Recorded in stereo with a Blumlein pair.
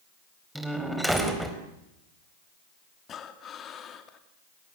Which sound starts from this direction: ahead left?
Breathing, at 3.1 s.